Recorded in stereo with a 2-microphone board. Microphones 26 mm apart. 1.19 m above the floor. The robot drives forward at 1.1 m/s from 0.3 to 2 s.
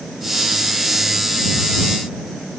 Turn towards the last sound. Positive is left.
No sound to turn to.